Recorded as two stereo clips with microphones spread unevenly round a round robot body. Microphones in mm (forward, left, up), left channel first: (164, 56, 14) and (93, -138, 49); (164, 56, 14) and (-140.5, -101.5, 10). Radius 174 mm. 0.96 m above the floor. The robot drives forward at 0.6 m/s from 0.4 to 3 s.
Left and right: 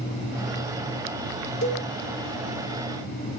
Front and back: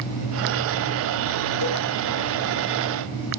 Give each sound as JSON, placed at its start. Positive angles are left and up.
{"t": 1.6, "sound": "a cowbell", "azimuth_deg": 65, "distance_m": 1.5}